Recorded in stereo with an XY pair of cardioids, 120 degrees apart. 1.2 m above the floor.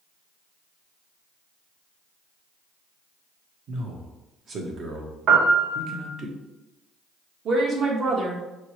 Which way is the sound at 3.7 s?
50° right.